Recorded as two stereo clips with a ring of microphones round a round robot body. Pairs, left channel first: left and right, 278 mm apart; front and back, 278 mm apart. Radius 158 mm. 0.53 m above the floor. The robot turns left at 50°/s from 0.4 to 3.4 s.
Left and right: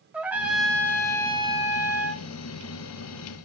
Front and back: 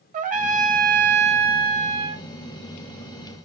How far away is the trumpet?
About 0.9 m.